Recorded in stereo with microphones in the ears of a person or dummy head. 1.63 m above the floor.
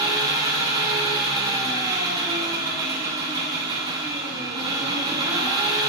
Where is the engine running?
20° right (ahead or behind), 0.8 m.